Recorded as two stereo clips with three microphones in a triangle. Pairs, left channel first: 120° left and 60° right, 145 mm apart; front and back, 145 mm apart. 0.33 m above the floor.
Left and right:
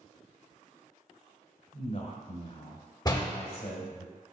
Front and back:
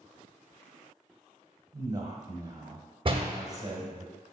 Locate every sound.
1.7 s a man speaking: 120° left, 1.4 m
3.0 s a door slam: 160° left, 0.7 m